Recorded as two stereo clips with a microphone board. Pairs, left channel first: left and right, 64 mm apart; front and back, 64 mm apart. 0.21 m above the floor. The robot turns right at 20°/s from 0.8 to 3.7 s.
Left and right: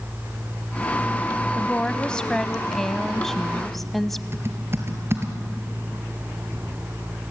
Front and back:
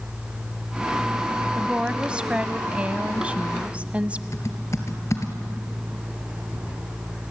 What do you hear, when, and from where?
1.6 s a woman speaking: 135° left, 1.0 m; by 4.2 s 175° left, 1.0 m
4.3 s typing on a keyboard: 40° right, 2.5 m